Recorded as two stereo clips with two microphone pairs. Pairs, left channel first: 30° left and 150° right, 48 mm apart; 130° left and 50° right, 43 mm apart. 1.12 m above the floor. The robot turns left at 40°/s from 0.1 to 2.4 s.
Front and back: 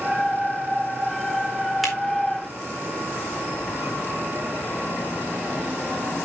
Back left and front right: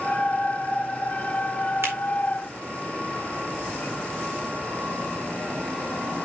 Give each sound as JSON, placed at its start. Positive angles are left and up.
{"t": 1.8, "sound": "a finger snap", "azimuth_deg": -60, "distance_m": 4.0}